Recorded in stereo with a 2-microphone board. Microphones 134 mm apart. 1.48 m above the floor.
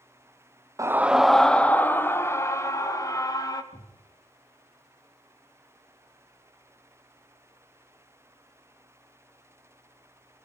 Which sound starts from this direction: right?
A scream, at 0.8 s.